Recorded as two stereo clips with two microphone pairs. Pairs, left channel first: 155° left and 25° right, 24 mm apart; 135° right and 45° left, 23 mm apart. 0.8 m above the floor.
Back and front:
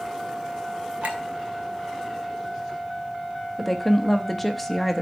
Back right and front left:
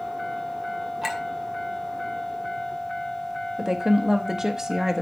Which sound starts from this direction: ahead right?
A clink, at 1.0 s.